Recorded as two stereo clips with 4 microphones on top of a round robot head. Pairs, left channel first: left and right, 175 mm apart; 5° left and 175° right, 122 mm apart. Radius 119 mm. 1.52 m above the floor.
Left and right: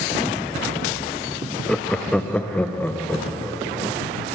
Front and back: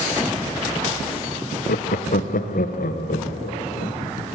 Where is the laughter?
5° left, 0.9 m; by 4.0 s 10° left, 3 m.